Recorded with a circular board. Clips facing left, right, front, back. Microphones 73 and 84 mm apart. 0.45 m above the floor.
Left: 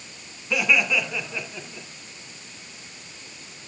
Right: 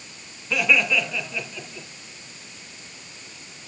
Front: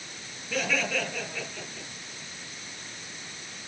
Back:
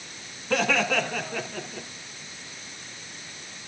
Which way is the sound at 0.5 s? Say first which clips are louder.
Right 1 dB, back 5 dB; 175° left.